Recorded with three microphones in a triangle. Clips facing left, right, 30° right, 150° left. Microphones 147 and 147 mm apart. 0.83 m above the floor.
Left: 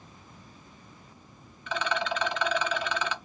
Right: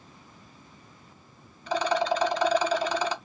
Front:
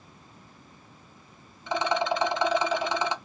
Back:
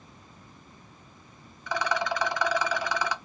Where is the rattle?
80° right, 0.6 m.